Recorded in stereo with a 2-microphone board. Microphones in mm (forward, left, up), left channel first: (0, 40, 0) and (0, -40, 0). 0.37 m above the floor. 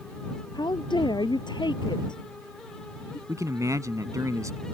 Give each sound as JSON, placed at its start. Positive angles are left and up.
{"t": 0.5, "sound": "a woman speaking", "side_deg": 70}
{"t": 3.3, "sound": "a man speaking", "side_deg": -45}